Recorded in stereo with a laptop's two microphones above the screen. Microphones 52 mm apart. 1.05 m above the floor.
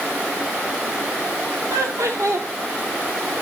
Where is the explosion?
I don't hear an explosion.